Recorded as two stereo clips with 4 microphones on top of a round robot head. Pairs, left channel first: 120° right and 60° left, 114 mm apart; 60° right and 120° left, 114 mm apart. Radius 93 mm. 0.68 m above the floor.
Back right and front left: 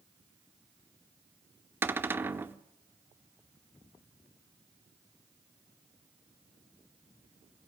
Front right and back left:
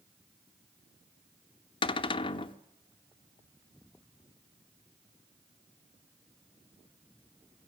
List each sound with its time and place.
1.8 s a cupboard door: 15° right, 1.0 m